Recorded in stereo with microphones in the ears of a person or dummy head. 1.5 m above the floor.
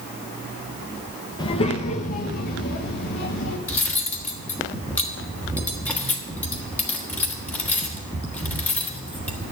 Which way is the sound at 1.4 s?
25° left (ahead or behind).